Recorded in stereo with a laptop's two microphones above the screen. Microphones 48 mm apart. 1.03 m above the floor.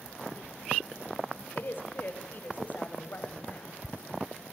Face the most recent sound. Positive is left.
turn(degrees=35)  # may be behind; listen again after turning